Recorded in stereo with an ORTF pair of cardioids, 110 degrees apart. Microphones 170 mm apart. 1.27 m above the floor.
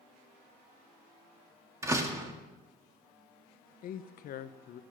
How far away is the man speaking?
About 0.8 m.